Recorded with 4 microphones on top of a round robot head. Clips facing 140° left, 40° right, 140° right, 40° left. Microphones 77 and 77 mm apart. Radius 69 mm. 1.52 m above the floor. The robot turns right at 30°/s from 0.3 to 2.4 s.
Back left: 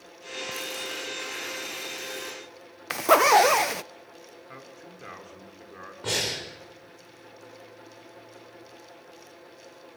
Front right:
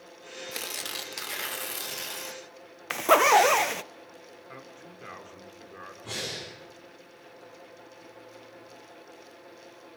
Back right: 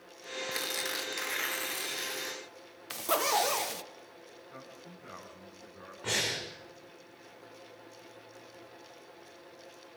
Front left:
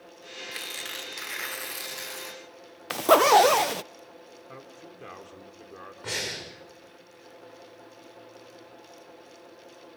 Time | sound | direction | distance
0.5 | tearing paper | 70° right | 1.9 m
2.9 | a zipper | 55° left | 0.6 m
4.5 | a man speaking | 50° left | 4 m
6.0 | breathing | 125° left | 6 m